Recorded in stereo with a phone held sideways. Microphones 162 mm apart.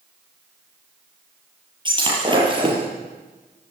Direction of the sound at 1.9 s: 30° right (ahead or behind).